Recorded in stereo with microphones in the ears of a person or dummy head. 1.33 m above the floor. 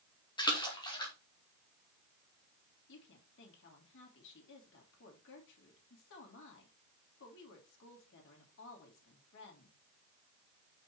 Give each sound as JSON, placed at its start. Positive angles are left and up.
{"t": 0.4, "sound": "a splash", "side_deg": 25, "distance_m": 2.5}
{"t": 2.9, "sound": "a woman speaking", "side_deg": 65, "distance_m": 3.5}